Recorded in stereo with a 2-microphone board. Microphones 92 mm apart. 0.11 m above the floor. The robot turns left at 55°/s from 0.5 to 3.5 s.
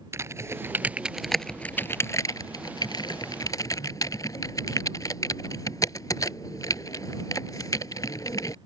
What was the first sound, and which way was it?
Typing on a keyboard, 30° right (ahead or behind).